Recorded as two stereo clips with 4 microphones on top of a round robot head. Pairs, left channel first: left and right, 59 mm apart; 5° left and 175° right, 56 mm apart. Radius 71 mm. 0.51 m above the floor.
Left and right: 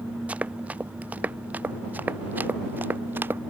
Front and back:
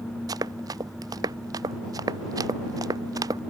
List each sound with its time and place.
0.3 s running footsteps: 160° right; by 3.4 s 150° right